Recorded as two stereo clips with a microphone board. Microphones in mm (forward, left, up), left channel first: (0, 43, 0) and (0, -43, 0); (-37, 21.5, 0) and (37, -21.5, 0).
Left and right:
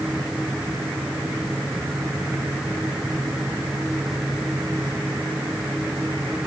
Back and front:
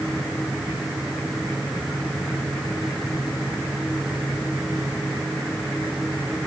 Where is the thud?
No thud in this recording.